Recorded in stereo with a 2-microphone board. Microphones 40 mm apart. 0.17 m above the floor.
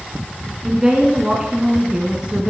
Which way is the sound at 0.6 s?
15° right (ahead or behind).